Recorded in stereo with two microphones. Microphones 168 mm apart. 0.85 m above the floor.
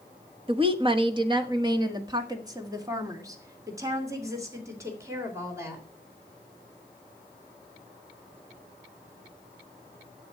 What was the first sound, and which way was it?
A woman speaking, 35° right (ahead or behind).